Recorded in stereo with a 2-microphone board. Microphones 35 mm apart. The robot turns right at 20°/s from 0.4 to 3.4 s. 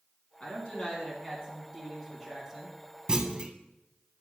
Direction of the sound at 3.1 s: 25° right (ahead or behind).